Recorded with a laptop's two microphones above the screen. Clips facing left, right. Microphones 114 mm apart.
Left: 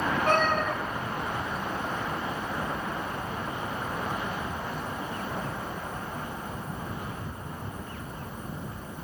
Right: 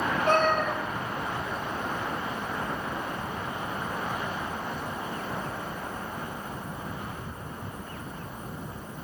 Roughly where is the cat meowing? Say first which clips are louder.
Right 2 dB; left.